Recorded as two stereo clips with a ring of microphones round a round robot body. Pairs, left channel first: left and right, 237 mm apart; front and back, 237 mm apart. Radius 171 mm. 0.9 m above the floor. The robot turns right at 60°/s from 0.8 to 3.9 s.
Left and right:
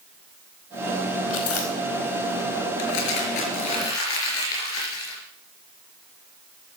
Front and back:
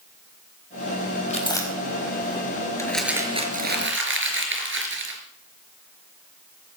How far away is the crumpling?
About 4.5 m.